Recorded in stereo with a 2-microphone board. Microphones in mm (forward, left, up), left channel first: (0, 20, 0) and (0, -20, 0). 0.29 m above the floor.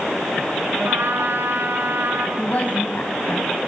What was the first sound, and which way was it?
A trumpet, 70° right (ahead or behind).